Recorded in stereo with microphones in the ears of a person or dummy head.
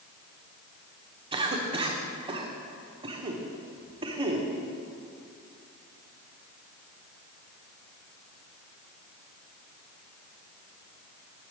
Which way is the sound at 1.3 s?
25° right (ahead or behind).